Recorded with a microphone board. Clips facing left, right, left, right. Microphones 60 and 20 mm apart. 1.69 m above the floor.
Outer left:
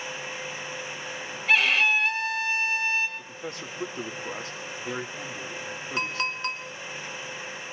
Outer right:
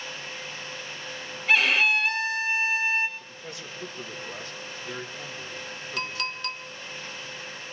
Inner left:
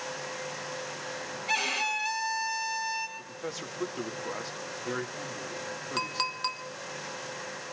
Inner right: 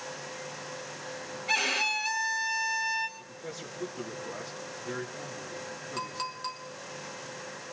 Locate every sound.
1.5 s a violin: centre (ahead or behind), 1.9 m
3.2 s a man speaking: 65° left (ahead or behind), 2.5 m
6.0 s a clink: 25° left (ahead or behind), 0.8 m